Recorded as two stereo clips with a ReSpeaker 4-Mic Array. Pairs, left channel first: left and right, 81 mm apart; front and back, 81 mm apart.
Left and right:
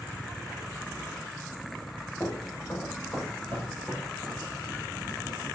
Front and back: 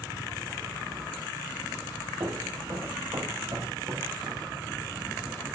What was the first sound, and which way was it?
Footsteps, 155° left.